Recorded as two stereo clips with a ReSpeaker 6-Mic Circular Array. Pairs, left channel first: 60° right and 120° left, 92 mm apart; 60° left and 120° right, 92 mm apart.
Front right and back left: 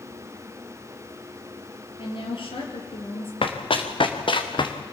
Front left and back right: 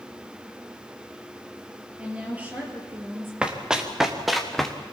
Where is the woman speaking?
45° right, 5 m; by 3.3 s 55° right, 5 m.